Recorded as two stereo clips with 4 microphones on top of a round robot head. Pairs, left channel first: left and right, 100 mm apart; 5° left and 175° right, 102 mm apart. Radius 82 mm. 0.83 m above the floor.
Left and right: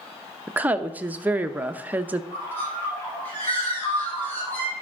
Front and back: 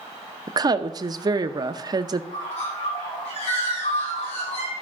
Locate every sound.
0.5 s a woman speaking: 155° right, 0.7 m
2.3 s a bird: 20° left, 5.5 m